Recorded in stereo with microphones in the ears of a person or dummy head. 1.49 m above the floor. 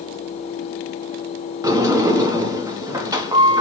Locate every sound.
1.6 s a sliding door: 25° right (ahead or behind), 1.0 m